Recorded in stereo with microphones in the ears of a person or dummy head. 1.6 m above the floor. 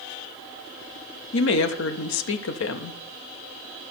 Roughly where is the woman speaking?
Left.